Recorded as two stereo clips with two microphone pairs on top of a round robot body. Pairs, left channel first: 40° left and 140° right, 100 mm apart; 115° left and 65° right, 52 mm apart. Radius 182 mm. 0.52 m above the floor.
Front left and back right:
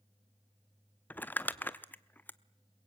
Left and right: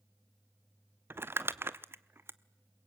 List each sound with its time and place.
1.1 s crumpling: 30° right, 1.0 m